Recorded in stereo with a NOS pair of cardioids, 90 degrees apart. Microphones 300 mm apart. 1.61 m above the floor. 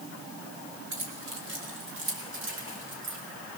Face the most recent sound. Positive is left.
turn(degrees=-40)